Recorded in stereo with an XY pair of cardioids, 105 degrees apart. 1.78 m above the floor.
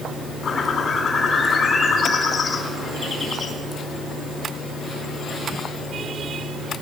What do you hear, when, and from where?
0.4 s a bird: 50° left, 3.5 m